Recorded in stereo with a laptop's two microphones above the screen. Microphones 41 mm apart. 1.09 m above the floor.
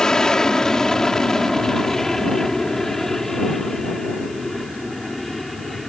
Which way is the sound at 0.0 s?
15° left (ahead or behind).